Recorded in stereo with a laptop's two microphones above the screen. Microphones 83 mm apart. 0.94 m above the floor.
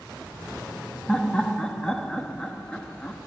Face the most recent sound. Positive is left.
turn(degrees=10)  # may be behind; listen again after turning